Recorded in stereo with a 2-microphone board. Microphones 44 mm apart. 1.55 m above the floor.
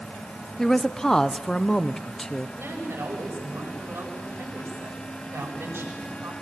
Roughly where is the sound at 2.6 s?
Right.